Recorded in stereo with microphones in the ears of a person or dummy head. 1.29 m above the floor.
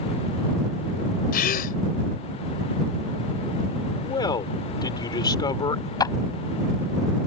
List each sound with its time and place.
1.3 s a gasp: 45° left (ahead or behind)
4.0 s a man speaking: 25° left (ahead or behind)
6.0 s a clap: 25° left (ahead or behind)